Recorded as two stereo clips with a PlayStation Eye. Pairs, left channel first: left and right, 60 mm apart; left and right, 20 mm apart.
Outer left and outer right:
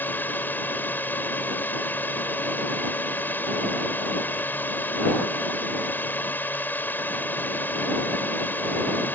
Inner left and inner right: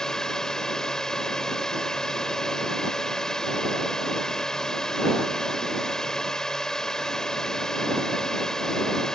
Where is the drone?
35° left (ahead or behind).